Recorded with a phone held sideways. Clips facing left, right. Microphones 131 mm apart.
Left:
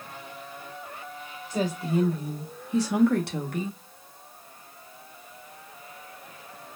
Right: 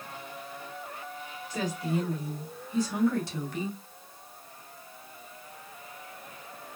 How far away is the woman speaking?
About 1.2 m.